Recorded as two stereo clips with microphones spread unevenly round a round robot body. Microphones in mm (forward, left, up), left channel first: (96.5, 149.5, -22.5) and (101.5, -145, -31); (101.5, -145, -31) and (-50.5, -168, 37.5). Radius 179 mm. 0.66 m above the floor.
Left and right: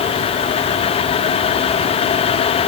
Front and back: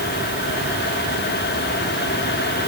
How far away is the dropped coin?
No dropped coin in this recording.